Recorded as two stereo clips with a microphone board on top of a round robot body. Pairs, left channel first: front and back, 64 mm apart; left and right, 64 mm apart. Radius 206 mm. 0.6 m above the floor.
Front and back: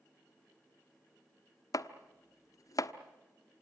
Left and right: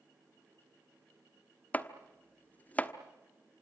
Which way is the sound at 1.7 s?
25° left.